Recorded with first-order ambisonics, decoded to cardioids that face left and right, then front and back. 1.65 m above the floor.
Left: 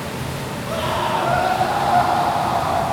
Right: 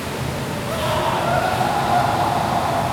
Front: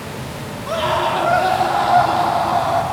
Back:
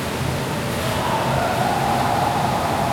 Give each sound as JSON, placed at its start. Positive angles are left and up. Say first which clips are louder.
{"t": 0.7, "sound": "a scream", "louder": "even, front 7 dB", "azimuth_deg": 0, "distance_m": 3.5}